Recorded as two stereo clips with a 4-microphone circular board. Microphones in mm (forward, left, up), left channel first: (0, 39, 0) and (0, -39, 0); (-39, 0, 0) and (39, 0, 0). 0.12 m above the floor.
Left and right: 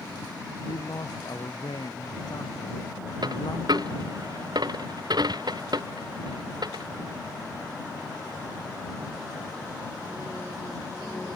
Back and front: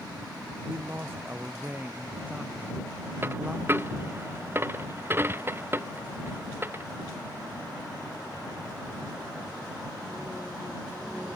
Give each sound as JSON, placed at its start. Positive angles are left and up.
{"t": 0.6, "sound": "a man speaking", "azimuth_deg": 60}
{"t": 3.2, "sound": "a dropped coin", "azimuth_deg": -60}